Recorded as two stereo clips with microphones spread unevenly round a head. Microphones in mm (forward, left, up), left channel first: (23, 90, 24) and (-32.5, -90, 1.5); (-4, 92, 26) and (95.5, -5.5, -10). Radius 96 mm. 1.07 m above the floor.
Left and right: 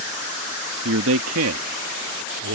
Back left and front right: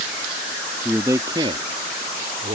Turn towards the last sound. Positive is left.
turn(degrees=-95)